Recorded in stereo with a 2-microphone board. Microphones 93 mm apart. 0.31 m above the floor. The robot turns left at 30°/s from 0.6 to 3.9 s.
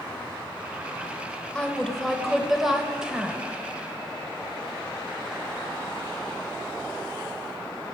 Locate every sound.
1.6 s a woman speaking: 10° left (ahead or behind), 0.9 m; by 3.4 s 10° right (ahead or behind), 0.9 m